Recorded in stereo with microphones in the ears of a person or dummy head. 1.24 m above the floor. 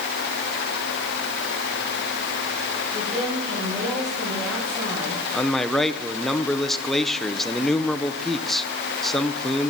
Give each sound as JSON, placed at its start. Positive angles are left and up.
{"t": 2.9, "sound": "a woman speaking", "side_deg": -5, "distance_m": 6.0}
{"t": 5.3, "sound": "a man speaking", "side_deg": 5, "distance_m": 0.6}